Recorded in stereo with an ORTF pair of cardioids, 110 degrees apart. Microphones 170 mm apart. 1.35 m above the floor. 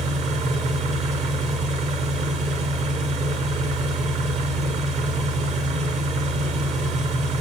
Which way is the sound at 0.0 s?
45° right.